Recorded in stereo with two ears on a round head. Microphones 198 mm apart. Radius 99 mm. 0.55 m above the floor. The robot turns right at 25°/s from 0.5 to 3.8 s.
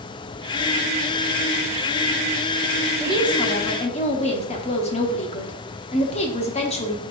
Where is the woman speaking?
20° left (ahead or behind), 0.8 m; by 7.0 s 30° left (ahead or behind), 0.8 m.